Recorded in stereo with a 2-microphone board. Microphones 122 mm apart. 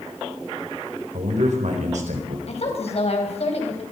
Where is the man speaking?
75° right (ahead or behind), 4.5 m.